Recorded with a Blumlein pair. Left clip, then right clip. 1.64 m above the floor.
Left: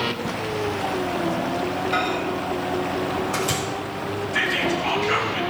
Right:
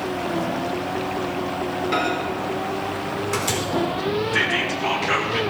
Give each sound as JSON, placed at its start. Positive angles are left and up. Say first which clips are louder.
{"t": 1.9, "sound": "a microwave", "louder": "right 2 dB", "azimuth_deg": -40, "distance_m": 4.0}
{"t": 4.3, "sound": "whispering", "louder": "left 2 dB", "azimuth_deg": -15, "distance_m": 2.0}